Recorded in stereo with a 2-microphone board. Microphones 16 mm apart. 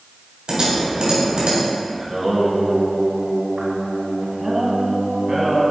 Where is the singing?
20° right (ahead or behind), 1.2 m.